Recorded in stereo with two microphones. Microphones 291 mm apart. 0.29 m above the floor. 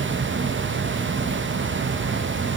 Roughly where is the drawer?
I don't hear a drawer.